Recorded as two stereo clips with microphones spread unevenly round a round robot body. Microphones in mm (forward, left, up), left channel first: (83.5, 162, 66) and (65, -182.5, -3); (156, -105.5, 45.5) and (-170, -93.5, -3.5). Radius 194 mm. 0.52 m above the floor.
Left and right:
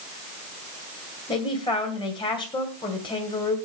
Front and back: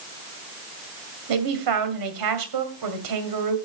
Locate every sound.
1.3 s a man speaking: 170° left, 2 m